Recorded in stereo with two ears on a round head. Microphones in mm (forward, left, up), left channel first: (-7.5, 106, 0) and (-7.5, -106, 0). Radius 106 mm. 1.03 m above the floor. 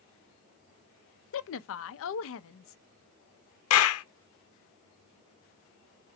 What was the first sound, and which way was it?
A woman speaking, 55° left (ahead or behind).